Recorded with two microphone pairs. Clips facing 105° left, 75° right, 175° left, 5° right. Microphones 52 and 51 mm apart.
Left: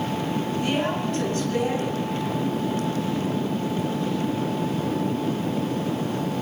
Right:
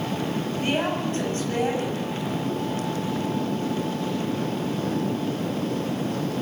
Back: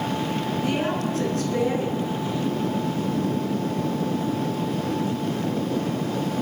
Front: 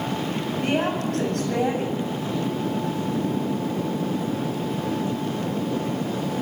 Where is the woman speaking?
15° right, 9 m.